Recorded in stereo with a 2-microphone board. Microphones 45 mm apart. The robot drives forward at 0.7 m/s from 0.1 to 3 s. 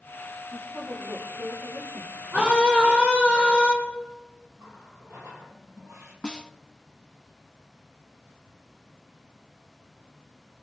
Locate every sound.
0.5 s a woman speaking: 65° right (ahead or behind), 6 m; by 2.2 s 55° right (ahead or behind), 6.5 m
2.3 s a scream: 35° right (ahead or behind), 6 m
4.6 s a running tap: 65° right (ahead or behind), 4 m
6.2 s a snare drum: 20° left (ahead or behind), 0.8 m